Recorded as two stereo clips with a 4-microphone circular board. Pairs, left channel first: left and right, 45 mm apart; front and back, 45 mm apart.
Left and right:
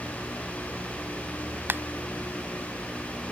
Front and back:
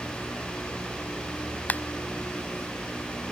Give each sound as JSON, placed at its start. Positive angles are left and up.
{"t": 1.7, "sound": "a finger snap", "azimuth_deg": -50}